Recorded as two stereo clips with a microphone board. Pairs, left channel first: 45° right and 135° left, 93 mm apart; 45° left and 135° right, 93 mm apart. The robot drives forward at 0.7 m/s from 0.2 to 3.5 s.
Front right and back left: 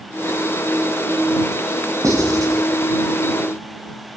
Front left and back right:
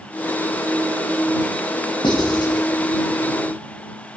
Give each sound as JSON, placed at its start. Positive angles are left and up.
{"t": 2.0, "sound": "writing", "azimuth_deg": 80, "distance_m": 6.5}